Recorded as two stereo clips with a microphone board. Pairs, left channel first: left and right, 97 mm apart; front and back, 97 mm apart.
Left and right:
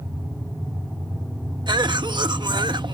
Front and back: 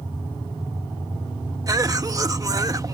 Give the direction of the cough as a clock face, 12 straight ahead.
4 o'clock.